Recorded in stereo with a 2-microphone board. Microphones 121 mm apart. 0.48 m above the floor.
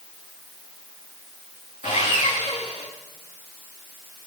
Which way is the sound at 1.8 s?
45° right (ahead or behind).